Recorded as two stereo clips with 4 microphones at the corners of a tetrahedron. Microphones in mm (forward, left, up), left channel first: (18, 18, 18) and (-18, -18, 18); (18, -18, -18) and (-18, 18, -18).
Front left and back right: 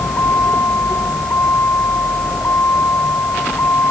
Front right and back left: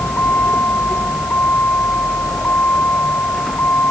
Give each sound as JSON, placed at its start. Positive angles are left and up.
{"t": 0.0, "sound": "a vehicle", "azimuth_deg": 5}